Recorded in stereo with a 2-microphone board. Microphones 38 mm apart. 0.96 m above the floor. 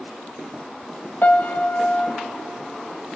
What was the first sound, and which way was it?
A piano, 50° left (ahead or behind).